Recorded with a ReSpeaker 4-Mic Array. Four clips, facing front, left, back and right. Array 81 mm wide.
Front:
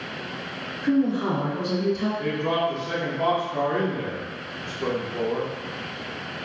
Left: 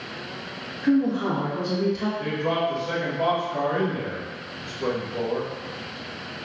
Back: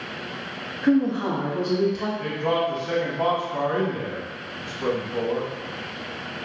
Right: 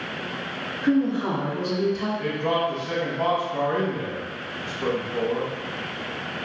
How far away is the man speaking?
About 1.7 m.